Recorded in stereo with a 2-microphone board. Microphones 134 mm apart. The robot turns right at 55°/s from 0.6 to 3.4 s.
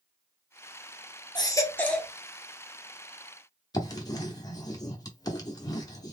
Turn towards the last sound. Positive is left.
turn(degrees=30)  # may be behind; listen again after turning